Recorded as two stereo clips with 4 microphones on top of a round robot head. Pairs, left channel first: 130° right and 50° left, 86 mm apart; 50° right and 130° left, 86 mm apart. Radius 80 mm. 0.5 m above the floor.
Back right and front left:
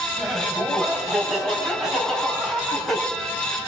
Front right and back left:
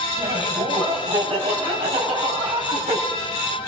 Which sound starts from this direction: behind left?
Laughter, at 0.2 s.